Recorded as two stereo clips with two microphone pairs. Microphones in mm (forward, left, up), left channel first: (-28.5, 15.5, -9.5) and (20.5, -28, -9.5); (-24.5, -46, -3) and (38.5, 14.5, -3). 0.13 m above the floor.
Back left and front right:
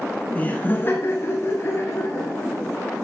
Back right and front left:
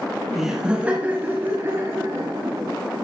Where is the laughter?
125° left, 1.1 m; by 2.8 s 100° left, 2.5 m.